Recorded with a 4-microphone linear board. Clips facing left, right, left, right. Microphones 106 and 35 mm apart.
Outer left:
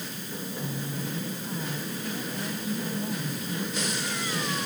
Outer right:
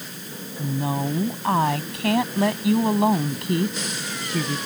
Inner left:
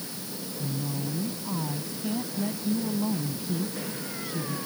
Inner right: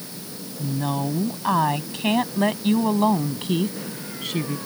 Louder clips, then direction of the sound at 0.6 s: Outer right 12 dB, inner right 8 dB; 80° right.